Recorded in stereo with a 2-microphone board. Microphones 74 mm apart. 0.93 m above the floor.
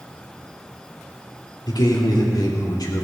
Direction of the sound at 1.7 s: 65° left (ahead or behind).